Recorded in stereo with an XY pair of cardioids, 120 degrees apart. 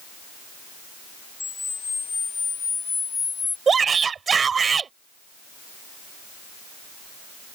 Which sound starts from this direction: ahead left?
A camera shutter, at 1.4 s.